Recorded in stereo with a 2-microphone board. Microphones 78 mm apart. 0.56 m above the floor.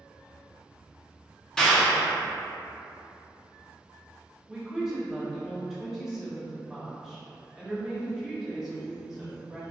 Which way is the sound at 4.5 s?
5° right (ahead or behind).